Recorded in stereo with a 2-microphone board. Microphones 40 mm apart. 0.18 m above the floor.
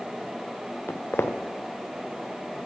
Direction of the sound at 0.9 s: 65° left (ahead or behind).